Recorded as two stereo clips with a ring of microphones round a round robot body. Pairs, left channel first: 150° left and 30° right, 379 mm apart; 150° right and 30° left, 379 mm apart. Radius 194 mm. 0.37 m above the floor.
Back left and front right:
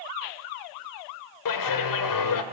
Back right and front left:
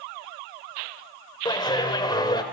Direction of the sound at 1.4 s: 135° left.